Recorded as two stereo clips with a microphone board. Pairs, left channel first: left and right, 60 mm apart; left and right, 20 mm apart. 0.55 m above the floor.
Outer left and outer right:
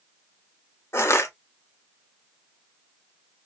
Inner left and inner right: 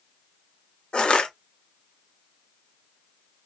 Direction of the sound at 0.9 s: 50° left (ahead or behind).